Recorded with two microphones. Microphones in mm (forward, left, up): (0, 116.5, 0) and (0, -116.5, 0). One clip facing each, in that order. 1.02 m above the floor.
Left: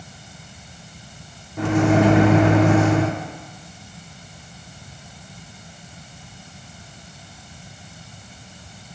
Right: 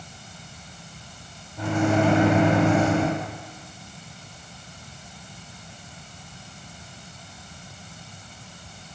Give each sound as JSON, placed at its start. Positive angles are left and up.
{"t": 1.6, "sound": "a microwave", "side_deg": 70, "distance_m": 0.6}